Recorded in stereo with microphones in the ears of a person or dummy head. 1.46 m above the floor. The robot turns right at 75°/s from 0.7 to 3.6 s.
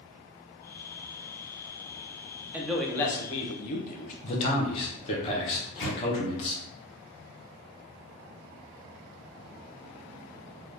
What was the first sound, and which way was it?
A man speaking, 15° right.